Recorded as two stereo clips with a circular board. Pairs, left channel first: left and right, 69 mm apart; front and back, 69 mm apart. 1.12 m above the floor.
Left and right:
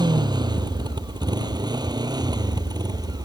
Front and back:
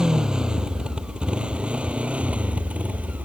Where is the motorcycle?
100° right; by 3.2 s 110° right.